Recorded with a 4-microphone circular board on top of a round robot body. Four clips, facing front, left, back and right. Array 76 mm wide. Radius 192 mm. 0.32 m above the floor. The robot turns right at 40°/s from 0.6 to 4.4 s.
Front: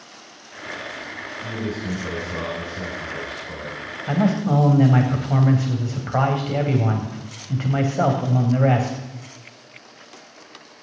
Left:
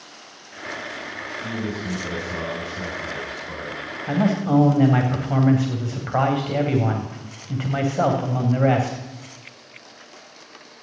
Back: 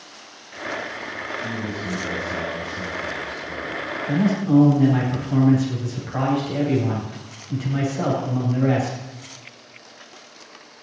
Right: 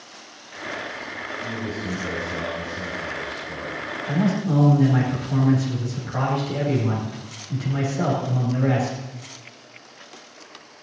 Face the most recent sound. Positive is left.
turn(degrees=50)